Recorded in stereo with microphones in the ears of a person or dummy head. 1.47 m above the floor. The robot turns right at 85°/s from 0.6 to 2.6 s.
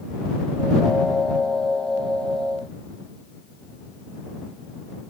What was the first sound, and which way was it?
Only background noise.